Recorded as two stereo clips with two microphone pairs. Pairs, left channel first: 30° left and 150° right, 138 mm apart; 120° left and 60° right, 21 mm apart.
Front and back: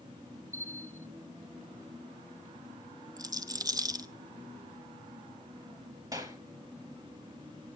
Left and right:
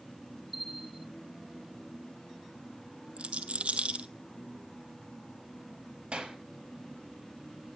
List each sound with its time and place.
0.5 s a bell: 125° right, 0.9 m
3.2 s a rattle: 85° right, 0.8 m
6.1 s a clap: 90° right, 2.5 m